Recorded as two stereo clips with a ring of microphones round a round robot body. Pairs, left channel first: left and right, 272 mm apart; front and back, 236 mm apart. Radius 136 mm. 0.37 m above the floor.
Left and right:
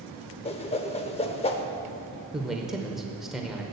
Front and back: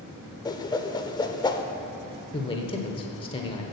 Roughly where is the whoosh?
Ahead left.